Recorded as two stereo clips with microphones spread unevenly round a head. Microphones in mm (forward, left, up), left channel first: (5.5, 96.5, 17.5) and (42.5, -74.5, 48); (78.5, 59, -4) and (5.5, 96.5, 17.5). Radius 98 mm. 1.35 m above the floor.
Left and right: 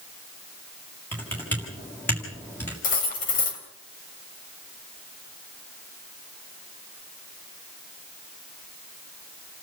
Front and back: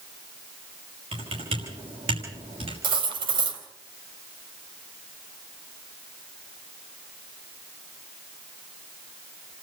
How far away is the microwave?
I don't hear a microwave.